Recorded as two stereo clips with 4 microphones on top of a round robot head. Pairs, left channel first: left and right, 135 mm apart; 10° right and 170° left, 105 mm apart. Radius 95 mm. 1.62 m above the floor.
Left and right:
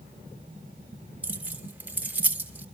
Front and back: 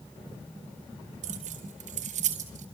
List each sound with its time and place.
1.2 s keys jangling: 170° right, 3 m